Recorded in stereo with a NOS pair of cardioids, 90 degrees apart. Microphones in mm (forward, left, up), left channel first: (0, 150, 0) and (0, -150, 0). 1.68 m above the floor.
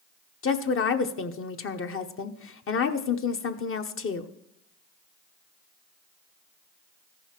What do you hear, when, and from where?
0.4 s a woman speaking: 45° left, 1.0 m